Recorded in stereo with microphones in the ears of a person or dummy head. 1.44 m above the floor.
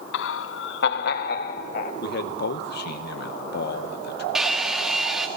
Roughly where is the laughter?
Left.